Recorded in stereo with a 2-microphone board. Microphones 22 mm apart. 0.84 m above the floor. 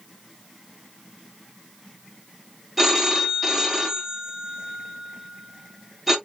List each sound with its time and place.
2.8 s a phone ringing: 5° right (ahead or behind), 0.9 m